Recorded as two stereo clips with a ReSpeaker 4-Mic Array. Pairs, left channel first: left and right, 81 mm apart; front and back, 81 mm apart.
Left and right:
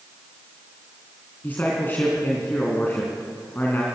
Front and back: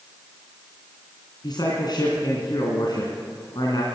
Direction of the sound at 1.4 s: 25° left.